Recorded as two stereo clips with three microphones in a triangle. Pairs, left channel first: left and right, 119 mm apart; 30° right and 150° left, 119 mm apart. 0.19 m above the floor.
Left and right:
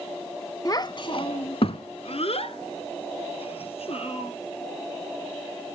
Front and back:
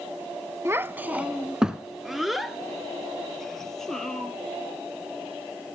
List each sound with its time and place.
0.7 s a child speaking: 110° left, 0.6 m; by 4.3 s 55° left, 2.5 m